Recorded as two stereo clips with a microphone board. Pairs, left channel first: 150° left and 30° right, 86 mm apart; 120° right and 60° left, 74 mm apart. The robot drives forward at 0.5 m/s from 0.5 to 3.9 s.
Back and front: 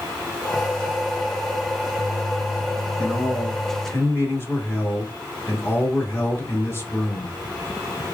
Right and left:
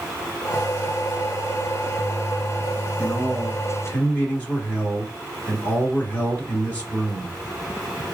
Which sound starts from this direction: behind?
A man speaking, at 3.0 s.